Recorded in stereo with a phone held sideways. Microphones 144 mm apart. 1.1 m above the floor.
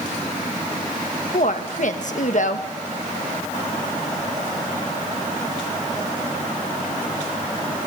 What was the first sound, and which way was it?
A woman speaking, 60° left (ahead or behind).